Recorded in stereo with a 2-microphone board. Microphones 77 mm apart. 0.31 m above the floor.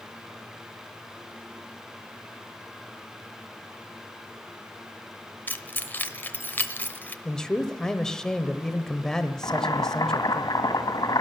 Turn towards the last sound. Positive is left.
turn(degrees=60)  # may be behind; listen again after turning